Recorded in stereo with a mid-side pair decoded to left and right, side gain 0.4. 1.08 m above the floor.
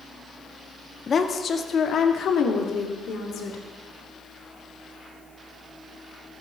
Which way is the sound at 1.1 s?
40° left.